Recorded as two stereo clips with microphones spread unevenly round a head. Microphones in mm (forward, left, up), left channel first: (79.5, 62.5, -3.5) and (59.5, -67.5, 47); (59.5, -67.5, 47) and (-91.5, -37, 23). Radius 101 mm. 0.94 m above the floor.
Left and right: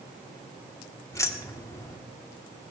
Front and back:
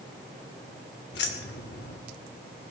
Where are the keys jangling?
15° left, 1.7 m.